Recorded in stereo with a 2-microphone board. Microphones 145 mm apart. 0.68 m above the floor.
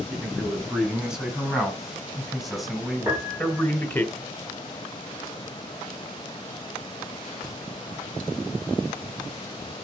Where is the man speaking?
5° right (ahead or behind), 8 m; by 4.1 s 15° left (ahead or behind), 2 m.